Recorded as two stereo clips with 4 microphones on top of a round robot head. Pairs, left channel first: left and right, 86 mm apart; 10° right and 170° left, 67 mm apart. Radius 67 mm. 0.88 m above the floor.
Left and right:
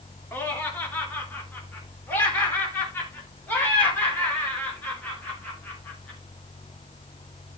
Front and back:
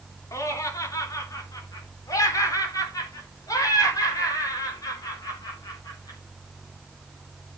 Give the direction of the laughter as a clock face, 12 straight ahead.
11 o'clock.